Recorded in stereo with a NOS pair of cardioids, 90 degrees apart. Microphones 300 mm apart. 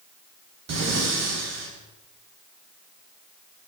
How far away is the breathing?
About 9.5 m.